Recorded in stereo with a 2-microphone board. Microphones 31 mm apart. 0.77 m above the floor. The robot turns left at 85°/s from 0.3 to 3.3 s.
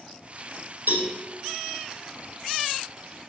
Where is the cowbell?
70° right (ahead or behind), 4 m; by 1.1 s 55° right (ahead or behind), 4 m.